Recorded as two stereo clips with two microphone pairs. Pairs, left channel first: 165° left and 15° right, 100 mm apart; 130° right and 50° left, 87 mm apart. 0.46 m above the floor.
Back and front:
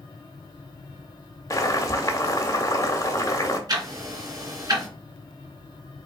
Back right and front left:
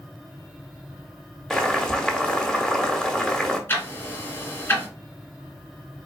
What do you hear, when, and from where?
1.5 s boiling: 155° left, 1.1 m
3.7 s ticking: 65° right, 2.0 m